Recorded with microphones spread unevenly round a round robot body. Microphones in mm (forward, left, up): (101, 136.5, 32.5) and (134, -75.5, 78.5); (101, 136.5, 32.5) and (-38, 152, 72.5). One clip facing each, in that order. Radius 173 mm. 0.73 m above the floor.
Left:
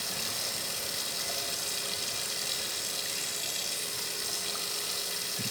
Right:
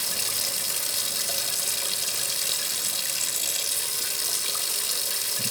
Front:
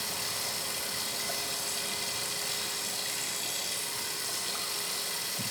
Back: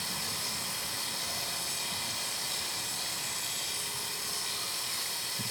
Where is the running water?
70° right, 0.9 m.